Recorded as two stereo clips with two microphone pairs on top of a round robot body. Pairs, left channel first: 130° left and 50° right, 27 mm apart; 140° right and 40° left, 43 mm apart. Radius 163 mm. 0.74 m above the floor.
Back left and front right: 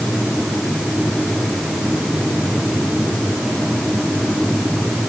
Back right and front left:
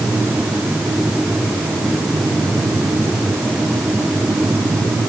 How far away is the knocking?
No knocking in this recording.